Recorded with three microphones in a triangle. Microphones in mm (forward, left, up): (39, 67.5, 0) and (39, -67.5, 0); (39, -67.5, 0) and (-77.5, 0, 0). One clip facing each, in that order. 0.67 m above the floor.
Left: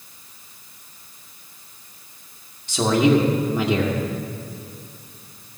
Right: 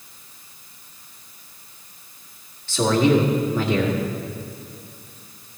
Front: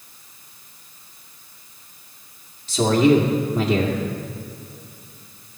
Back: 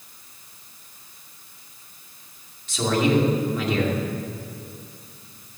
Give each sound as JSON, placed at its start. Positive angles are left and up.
{"t": 2.7, "sound": "a man speaking", "azimuth_deg": 20, "distance_m": 2.0}